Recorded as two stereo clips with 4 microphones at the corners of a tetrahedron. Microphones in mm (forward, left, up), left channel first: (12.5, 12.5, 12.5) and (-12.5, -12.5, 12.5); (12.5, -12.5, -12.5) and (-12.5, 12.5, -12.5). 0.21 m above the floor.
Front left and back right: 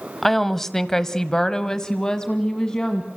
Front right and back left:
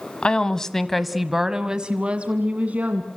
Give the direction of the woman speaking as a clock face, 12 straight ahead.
1 o'clock.